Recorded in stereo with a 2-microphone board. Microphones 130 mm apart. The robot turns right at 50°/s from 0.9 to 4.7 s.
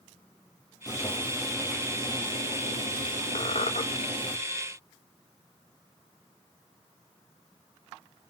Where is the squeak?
50° left (ahead or behind), 1.0 m; by 3.8 s 70° left (ahead or behind), 1.0 m.